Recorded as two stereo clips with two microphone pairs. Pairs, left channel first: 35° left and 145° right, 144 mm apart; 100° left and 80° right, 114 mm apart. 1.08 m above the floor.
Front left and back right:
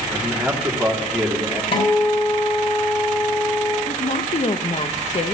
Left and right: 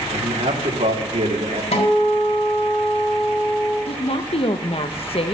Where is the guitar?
80° left, 3.5 m.